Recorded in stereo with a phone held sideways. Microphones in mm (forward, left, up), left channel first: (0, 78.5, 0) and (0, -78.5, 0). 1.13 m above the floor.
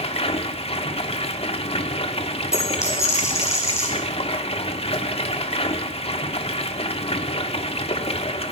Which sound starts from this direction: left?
Running water, at 0.0 s.